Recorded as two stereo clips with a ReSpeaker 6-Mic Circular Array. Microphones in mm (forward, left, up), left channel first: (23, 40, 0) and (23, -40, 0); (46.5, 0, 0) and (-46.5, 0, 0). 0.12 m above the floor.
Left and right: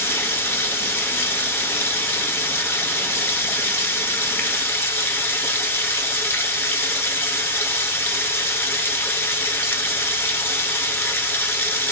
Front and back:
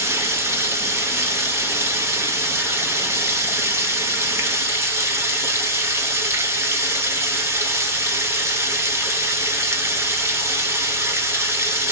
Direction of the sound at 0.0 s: 135° left.